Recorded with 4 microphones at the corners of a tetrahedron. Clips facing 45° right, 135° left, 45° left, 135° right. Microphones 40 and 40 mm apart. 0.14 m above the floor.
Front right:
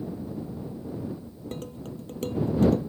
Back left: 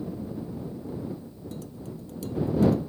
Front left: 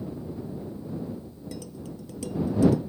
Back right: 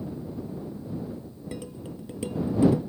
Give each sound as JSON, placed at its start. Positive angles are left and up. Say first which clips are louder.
{"t": 1.5, "sound": "dishes clattering", "louder": "front right 3 dB, back right 2 dB", "azimuth_deg": -80}